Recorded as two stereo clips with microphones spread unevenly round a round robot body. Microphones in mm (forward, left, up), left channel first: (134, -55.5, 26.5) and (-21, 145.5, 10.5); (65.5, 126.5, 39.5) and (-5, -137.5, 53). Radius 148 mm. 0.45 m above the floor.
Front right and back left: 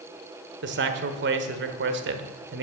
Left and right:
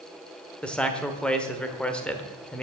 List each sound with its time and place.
0.6 s a man speaking: 160° left, 1.1 m